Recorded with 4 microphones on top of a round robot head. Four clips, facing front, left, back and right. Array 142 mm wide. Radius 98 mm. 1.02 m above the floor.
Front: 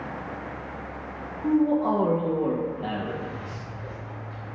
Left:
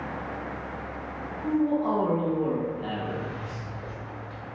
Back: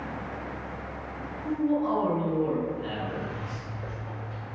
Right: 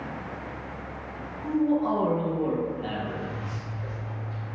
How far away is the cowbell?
No cowbell in this recording.